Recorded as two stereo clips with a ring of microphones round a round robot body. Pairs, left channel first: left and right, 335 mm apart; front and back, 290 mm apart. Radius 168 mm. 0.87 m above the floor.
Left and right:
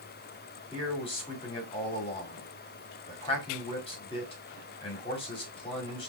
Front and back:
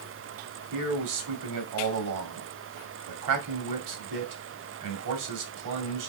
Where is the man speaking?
165° left, 1.9 m.